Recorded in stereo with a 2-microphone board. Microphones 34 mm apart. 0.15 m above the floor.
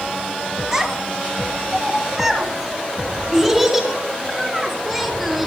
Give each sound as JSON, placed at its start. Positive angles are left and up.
{"t": 0.7, "sound": "a child speaking", "side_deg": -5, "distance_m": 2.0}